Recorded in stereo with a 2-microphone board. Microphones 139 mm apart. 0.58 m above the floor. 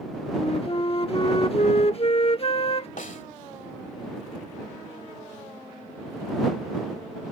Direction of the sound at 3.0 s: 65° left (ahead or behind).